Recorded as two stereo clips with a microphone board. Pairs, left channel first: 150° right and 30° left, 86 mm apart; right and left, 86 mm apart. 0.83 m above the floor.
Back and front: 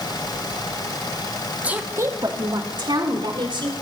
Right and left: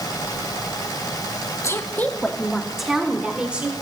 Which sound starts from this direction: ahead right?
A woman speaking, at 1.6 s.